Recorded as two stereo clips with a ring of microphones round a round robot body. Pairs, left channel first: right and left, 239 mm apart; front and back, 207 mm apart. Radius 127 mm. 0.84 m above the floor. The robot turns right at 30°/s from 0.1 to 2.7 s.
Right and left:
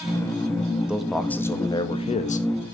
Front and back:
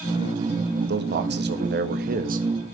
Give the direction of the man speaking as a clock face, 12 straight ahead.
6 o'clock.